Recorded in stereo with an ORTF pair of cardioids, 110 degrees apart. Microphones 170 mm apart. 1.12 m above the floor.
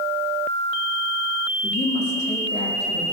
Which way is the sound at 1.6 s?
40° left.